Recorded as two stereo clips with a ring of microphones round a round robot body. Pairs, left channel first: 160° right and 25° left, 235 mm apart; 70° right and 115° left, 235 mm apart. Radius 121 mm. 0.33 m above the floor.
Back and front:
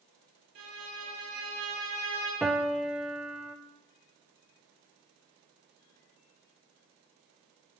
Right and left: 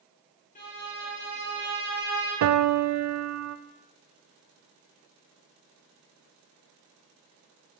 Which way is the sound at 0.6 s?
10° right.